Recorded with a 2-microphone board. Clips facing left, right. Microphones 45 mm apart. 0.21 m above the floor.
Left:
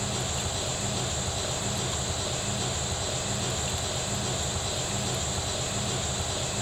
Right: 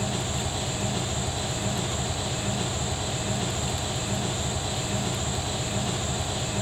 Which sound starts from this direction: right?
An engine running, at 0.0 s.